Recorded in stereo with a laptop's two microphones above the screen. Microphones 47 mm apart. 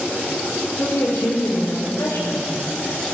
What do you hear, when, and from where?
0.8 s a woman speaking: 65° left (ahead or behind), 3 m